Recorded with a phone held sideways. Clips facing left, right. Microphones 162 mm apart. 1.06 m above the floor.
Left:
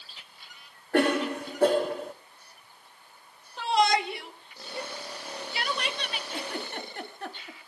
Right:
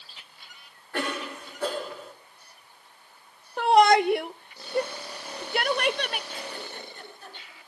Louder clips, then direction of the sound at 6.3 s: Left 3 dB; 70° left (ahead or behind).